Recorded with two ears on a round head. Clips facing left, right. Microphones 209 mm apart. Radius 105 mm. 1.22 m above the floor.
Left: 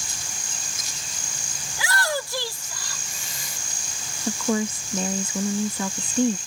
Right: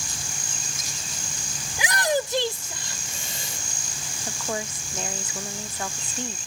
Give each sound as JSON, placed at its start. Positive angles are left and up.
{"t": 1.7, "sound": "a shout", "side_deg": -20}
{"t": 4.3, "sound": "a woman speaking", "side_deg": 80}